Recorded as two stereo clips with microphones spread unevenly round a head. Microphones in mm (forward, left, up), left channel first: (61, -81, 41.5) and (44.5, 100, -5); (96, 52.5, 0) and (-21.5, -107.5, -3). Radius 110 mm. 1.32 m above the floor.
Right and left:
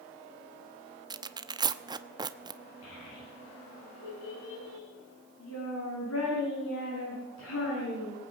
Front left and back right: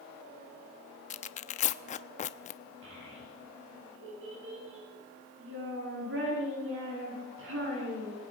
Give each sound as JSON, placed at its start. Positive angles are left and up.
{"t": 1.1, "sound": "tearing paper", "azimuth_deg": 20, "distance_m": 0.9}
{"t": 2.8, "sound": "a child speaking", "azimuth_deg": -110, "distance_m": 9.5}